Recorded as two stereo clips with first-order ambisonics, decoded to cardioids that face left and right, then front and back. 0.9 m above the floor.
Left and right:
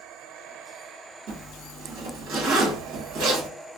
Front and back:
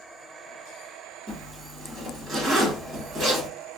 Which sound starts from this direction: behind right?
A zipper, at 1.3 s.